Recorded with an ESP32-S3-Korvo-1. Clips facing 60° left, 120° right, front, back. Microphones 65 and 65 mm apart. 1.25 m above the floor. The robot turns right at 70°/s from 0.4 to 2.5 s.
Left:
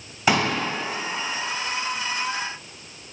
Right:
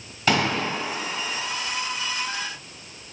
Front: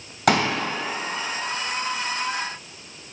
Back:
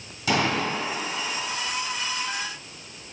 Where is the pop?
15° right, 2.5 m; by 0.5 s 5° right, 2.5 m.